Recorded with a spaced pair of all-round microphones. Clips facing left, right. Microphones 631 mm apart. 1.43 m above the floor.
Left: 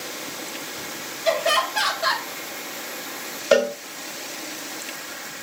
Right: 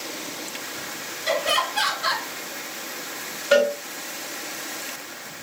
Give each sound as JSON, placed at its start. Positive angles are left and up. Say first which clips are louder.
{"t": 1.2, "sound": "laughter", "louder": "left 2 dB", "side_deg": 80, "distance_m": 2.5}
{"t": 3.5, "sound": "a cowbell", "louder": "even", "side_deg": 65, "distance_m": 0.8}